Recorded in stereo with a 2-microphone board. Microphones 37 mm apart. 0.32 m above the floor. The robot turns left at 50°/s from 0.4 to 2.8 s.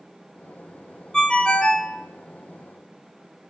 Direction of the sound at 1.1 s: 20° left (ahead or behind).